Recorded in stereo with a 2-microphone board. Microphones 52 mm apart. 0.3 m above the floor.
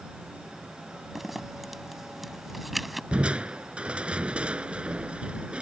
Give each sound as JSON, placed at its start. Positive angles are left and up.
{"t": 1.1, "sound": "a zipper", "side_deg": 0}
{"t": 3.1, "sound": "crushing", "side_deg": -20}